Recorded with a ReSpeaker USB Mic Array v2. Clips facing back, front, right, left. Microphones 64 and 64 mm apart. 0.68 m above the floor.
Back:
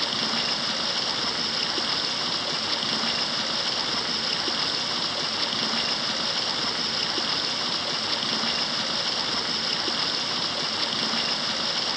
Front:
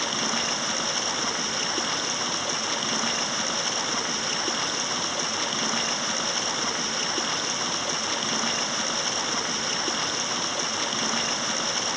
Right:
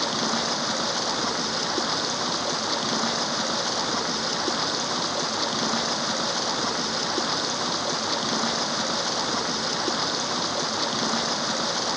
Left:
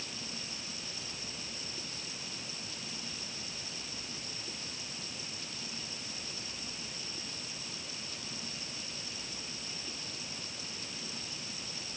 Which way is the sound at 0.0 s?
85° right.